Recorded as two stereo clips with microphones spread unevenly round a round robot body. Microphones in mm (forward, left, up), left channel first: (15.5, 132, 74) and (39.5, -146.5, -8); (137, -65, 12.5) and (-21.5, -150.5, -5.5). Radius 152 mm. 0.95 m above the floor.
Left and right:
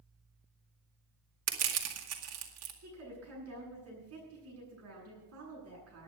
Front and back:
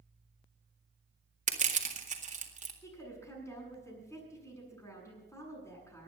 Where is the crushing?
110° right, 2 m.